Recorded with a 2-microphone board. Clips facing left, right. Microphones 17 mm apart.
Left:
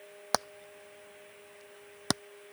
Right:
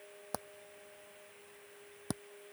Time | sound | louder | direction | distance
0.3 | hammering | left 12 dB | 70° left (ahead or behind) | ?